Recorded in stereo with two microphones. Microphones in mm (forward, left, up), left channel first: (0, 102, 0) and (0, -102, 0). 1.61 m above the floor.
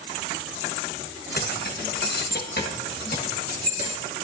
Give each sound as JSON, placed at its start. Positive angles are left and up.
{"t": 1.4, "sound": "keys jangling", "side_deg": 50, "distance_m": 1.1}